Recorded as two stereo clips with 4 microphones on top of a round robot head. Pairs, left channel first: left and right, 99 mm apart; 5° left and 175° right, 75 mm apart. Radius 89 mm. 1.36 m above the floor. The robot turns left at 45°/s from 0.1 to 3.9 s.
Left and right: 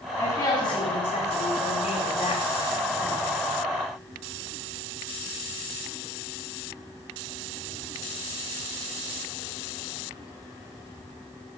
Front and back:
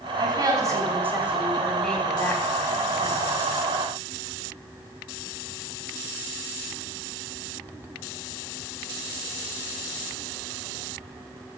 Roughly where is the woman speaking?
Behind left.